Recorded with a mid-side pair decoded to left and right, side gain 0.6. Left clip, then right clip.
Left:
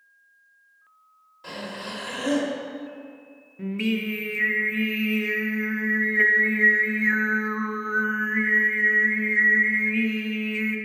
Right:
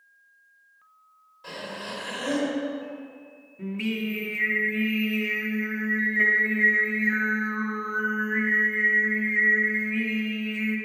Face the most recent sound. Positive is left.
turn(degrees=25)